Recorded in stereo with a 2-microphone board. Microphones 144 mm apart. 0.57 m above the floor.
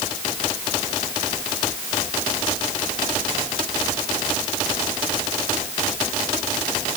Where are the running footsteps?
No running footsteps in this recording.